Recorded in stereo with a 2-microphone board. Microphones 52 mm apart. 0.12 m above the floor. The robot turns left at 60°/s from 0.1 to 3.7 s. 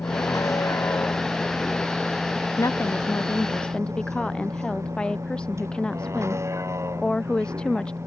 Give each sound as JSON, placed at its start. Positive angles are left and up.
{"t": 0.0, "sound": "a vehicle", "side_deg": 65}
{"t": 2.6, "sound": "a woman speaking", "azimuth_deg": 85}